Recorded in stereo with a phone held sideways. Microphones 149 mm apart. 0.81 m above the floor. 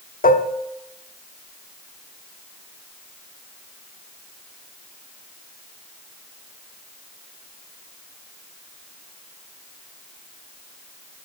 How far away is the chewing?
No chewing in this recording.